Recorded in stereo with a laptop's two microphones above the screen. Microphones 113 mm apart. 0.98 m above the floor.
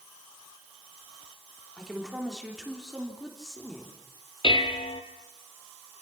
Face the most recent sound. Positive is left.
turn(degrees=50)  # may be behind; listen again after turning